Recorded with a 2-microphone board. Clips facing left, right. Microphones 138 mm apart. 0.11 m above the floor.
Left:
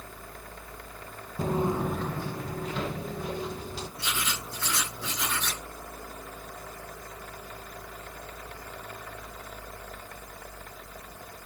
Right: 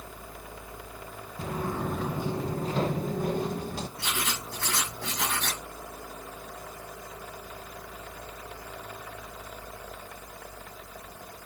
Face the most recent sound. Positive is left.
turn(degrees=-75)  # may be behind; listen again after turning